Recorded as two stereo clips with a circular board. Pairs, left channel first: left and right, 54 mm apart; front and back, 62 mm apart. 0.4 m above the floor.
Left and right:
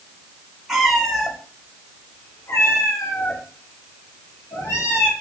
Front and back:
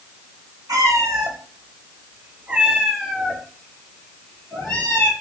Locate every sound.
0.7 s a cat meowing: 175° right, 1.0 m; by 5.1 s 65° left, 1.6 m